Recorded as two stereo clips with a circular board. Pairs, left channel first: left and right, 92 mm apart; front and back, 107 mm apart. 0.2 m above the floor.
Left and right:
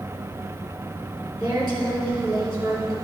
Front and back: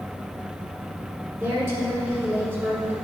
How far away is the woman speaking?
About 2 m.